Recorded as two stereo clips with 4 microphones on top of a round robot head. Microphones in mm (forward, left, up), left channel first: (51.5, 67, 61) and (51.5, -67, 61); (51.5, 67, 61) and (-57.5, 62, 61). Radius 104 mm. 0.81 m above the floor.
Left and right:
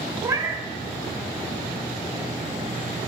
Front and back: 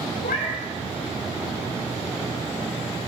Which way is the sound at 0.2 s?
20° right.